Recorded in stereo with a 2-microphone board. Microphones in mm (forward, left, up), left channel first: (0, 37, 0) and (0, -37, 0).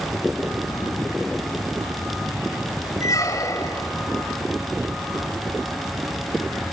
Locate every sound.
3.0 s a squeak: 45° left (ahead or behind), 4 m